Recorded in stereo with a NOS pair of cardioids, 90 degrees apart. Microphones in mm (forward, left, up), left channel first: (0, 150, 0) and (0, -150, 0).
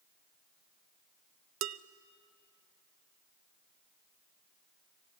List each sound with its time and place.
1.6 s dishes clattering: 60° right, 0.6 m